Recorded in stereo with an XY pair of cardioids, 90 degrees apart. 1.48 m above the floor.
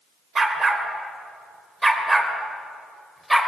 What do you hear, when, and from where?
0.3 s a dog barking: 45° right, 3 m; by 3.5 s 10° right, 3 m